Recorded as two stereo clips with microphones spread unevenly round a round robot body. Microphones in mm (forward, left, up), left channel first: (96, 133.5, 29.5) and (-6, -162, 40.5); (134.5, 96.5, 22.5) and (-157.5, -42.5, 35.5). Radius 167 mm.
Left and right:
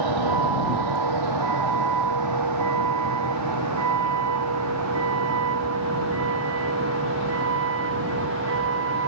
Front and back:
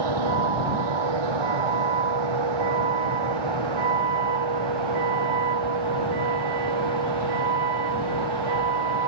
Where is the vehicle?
135° right; by 9.1 s 165° right.